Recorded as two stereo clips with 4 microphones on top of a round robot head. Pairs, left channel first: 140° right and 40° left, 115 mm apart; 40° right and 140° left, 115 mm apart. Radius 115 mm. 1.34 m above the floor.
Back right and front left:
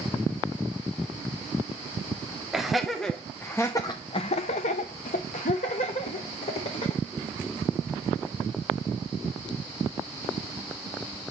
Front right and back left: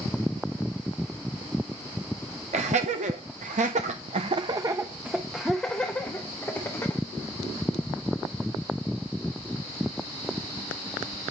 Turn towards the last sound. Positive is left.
turn(degrees=-105)